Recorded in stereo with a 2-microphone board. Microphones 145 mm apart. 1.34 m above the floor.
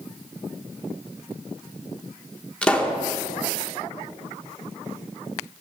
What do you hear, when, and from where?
2.6 s a pop: 10° left (ahead or behind), 1.6 m